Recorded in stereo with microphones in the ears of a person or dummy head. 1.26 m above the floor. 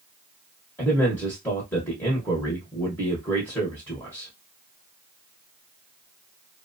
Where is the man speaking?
10° left (ahead or behind), 0.8 m.